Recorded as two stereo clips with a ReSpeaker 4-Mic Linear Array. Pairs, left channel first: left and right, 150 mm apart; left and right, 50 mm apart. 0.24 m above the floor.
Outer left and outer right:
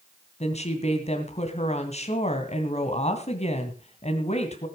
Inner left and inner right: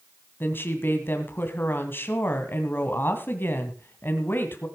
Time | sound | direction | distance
0.4 | a woman speaking | 45° left (ahead or behind) | 2 m